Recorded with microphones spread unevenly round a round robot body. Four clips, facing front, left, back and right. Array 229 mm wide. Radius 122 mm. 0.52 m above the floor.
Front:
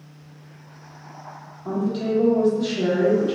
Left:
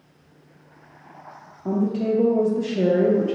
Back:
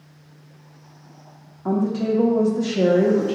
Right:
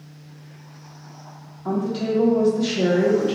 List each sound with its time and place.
1.6 s a woman speaking: 155° left, 0.8 m